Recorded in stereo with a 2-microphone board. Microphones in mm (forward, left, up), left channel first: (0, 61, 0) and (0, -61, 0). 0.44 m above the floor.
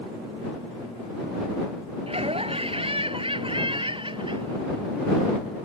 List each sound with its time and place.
2.1 s laughter: 55° right (ahead or behind); by 5.4 s 40° right (ahead or behind)